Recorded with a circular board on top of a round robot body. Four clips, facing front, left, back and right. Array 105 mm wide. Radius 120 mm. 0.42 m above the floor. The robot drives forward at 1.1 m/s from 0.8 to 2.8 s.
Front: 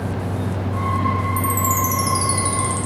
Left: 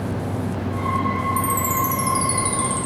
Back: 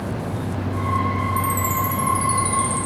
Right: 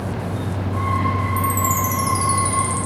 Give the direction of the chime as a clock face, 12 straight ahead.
11 o'clock.